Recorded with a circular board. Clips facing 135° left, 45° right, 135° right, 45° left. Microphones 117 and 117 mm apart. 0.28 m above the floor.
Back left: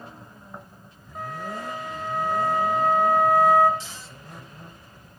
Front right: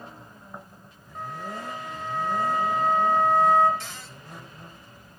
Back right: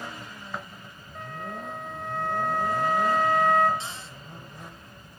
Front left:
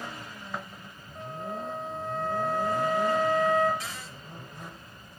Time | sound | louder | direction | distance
1.1 | a flute | back left 2 dB, front left 1 dB | 145° right | 4 m
3.8 | a cupboard door | front right 1 dB, back right 1 dB | 75° right | 4 m